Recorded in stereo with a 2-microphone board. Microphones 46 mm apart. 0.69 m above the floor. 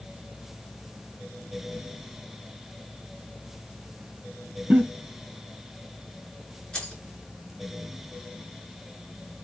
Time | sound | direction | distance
4.7 | a giggle | 35° right (ahead or behind) | 2.5 m
6.7 | keys jangling | 15° left (ahead or behind) | 6.5 m